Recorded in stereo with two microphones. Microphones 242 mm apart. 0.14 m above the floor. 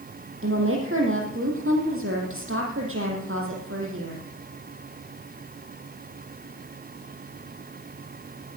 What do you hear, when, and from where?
0.4 s a woman speaking: 55° right (ahead or behind), 4.5 m